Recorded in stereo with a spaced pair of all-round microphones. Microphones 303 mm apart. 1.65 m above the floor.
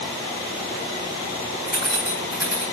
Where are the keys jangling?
30° left (ahead or behind), 6.5 m.